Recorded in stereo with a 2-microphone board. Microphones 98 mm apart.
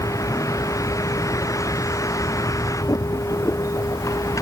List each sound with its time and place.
0.0 s a vehicle: 35° left (ahead or behind)